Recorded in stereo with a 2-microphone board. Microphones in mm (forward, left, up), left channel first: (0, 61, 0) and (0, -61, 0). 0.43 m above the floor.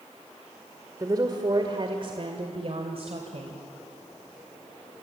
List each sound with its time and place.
1.0 s a woman speaking: 30° right (ahead or behind), 1.7 m; by 3.6 s 60° right (ahead or behind), 2.5 m